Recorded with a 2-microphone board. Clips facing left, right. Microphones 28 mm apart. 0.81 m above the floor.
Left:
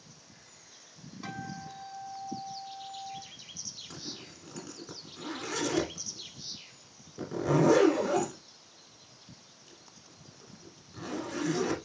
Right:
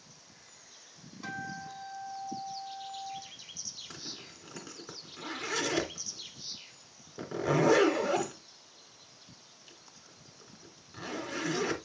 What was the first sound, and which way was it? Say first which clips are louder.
A guitar: right 1 dB; 5° left (ahead or behind).